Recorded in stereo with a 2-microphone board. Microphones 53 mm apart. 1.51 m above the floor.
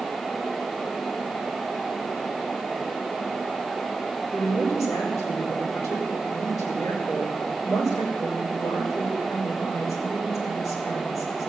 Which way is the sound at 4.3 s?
85° left.